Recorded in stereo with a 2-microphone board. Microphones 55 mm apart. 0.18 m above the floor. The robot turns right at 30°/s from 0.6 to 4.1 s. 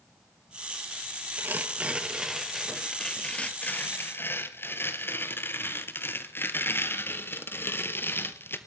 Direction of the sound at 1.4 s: 40° right.